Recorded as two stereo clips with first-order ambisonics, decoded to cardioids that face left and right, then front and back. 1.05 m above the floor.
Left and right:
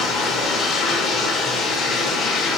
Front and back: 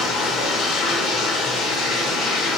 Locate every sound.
0.0 s running water: 40° left, 1.4 m